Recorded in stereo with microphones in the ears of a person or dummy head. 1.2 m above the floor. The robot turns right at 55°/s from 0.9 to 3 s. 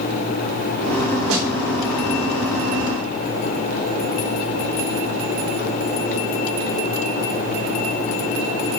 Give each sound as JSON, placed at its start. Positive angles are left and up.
{"t": 1.3, "sound": "a snare drum", "side_deg": -80, "distance_m": 5.0}